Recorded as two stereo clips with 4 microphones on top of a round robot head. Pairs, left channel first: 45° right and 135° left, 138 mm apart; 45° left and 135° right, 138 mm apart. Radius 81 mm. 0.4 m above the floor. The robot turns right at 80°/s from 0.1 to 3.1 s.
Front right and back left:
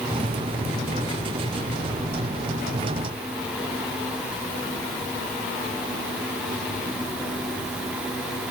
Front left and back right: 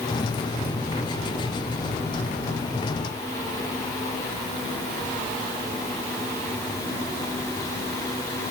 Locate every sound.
Only background noise.